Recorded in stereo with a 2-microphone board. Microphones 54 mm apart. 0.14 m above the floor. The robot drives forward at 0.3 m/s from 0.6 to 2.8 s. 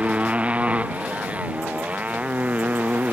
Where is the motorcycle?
25° right (ahead or behind); by 3.1 s 30° right (ahead or behind).